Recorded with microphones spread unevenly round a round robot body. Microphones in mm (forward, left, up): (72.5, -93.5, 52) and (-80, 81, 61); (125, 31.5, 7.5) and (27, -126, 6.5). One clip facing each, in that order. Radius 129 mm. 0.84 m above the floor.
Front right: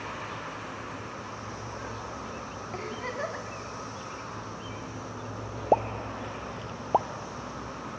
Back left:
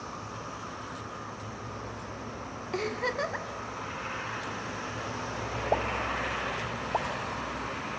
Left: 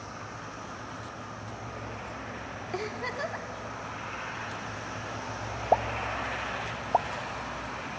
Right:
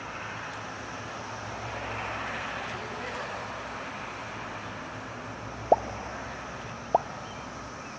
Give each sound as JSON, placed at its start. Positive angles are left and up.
{"t": 2.7, "sound": "a giggle", "azimuth_deg": 90, "distance_m": 1.1}
{"t": 5.7, "sound": "a pop", "azimuth_deg": -65, "distance_m": 0.5}